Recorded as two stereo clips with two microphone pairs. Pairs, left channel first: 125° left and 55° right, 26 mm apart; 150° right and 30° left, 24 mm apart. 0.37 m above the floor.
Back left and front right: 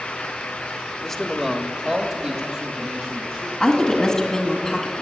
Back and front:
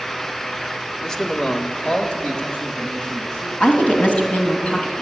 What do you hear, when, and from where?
1.0 s a man speaking: straight behind, 0.9 m; by 3.5 s 105° right, 3 m
3.6 s a woman speaking: 165° right, 2.5 m